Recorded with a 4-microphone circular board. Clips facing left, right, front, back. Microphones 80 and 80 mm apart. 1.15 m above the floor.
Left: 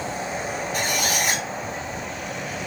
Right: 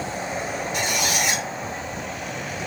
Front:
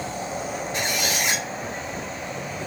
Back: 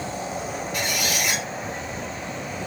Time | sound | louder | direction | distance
0.7 | a squeak | even, even | 55° left | 1.1 m